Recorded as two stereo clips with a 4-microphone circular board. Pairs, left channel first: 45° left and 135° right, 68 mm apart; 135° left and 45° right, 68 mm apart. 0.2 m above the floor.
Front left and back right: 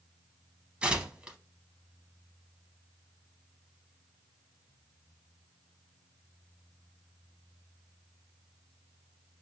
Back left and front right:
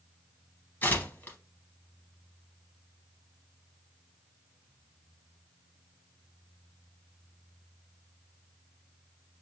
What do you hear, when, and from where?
0.8 s tearing paper: 165° left, 0.6 m